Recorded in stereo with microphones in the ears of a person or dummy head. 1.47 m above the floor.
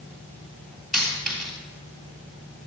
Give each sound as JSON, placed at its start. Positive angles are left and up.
{"t": 0.9, "sound": "a dropped coin", "side_deg": -5, "distance_m": 3.5}